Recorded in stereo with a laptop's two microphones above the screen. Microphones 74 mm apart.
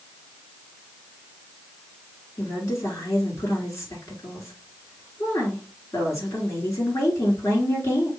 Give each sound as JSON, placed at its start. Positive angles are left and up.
{"t": 2.4, "sound": "a woman speaking", "side_deg": 35, "distance_m": 3.0}